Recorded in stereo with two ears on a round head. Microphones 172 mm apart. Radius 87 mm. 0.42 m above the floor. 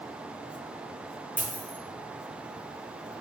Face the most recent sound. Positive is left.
turn(degrees=5)  # may be behind; listen again after turning